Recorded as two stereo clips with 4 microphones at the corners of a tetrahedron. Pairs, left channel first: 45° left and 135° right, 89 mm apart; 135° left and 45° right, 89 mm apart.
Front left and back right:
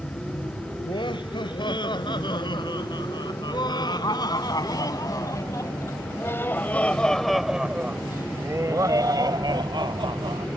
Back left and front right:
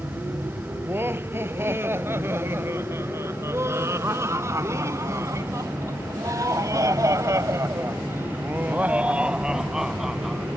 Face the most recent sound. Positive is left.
turn(degrees=-135)